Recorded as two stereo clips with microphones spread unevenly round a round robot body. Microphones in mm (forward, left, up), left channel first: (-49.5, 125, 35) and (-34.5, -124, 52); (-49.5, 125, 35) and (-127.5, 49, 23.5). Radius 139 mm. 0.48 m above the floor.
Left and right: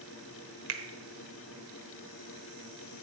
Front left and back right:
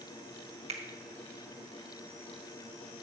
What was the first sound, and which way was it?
A finger snap, 105° right.